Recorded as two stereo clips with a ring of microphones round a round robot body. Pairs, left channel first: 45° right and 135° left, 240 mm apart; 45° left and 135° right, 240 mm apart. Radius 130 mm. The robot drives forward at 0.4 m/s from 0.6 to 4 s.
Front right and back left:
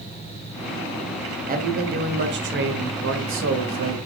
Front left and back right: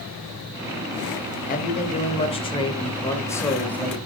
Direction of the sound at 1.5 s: 90° left.